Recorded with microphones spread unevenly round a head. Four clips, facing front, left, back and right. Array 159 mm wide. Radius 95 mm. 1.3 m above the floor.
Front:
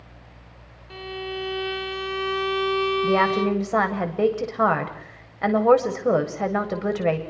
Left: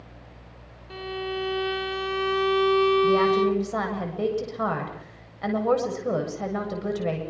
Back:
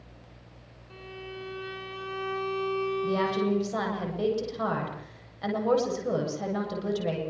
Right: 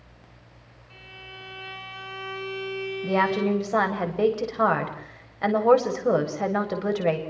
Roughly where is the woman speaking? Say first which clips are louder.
Left 3 dB, front 6 dB; ahead right.